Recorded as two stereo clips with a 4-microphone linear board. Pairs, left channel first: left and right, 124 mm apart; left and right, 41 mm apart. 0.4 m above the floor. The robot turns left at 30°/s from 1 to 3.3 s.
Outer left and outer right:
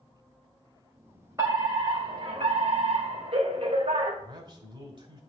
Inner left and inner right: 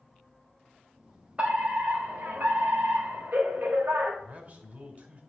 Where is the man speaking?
40° right (ahead or behind), 2.5 m.